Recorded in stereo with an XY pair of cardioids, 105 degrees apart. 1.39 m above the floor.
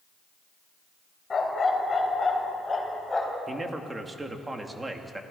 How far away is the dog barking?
About 3 m.